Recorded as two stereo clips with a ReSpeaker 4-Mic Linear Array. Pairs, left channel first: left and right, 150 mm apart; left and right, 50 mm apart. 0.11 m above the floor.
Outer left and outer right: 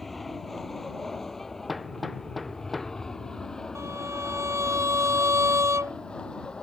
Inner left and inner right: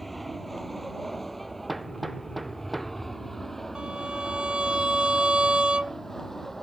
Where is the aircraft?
Centre (ahead or behind); by 6.6 s 5° left (ahead or behind).